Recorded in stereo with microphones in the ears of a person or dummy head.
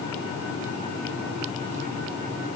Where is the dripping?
I don't hear dripping.